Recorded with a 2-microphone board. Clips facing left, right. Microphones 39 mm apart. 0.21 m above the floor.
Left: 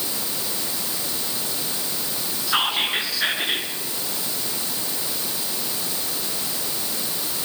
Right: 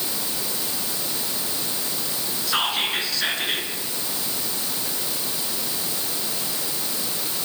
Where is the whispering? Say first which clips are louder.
Left 2 dB; 10° left (ahead or behind), 3 m.